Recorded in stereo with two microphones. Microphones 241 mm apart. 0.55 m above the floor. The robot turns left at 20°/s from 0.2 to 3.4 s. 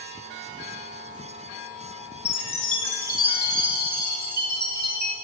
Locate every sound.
2.2 s a chime: 60° right (ahead or behind), 2 m; by 5.2 s 40° right (ahead or behind), 2 m